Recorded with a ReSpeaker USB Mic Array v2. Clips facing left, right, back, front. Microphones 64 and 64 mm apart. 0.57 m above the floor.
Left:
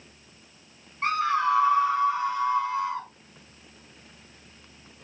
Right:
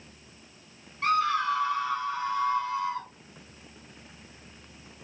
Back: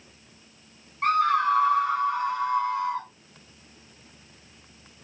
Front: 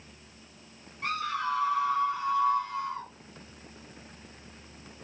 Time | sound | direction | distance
1.0 | a scream | 150° left | 2 m